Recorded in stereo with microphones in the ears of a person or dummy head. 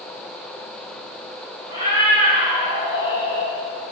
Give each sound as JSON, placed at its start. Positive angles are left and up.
{"t": 1.7, "sound": "a cat meowing", "side_deg": -30, "distance_m": 2.5}